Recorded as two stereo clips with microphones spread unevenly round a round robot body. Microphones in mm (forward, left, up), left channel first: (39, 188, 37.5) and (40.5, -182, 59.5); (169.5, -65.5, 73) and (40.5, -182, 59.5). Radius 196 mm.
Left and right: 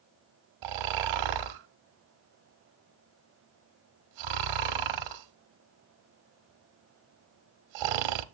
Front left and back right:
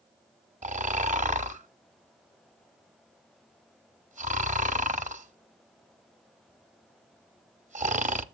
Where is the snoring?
85° right, 0.9 m.